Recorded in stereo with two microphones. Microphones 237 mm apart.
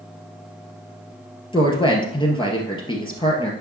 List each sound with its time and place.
1.5 s a woman speaking: 20° left (ahead or behind), 2 m